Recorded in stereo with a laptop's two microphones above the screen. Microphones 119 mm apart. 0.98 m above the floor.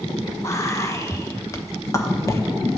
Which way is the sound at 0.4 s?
25° left (ahead or behind).